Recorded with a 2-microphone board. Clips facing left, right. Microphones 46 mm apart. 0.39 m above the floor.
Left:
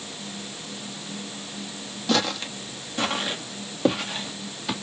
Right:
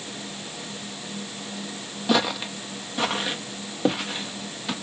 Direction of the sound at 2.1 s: 15° right (ahead or behind).